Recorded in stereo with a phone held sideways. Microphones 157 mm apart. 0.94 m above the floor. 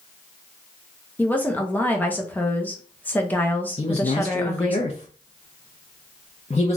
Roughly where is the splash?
No splash in this recording.